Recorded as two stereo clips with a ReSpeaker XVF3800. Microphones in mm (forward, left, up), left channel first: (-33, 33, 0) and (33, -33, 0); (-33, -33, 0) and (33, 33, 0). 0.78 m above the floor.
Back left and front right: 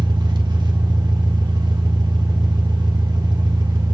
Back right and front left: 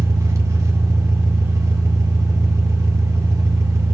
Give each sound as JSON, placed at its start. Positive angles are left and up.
{"t": 0.0, "sound": "an engine running", "azimuth_deg": -10, "distance_m": 1.6}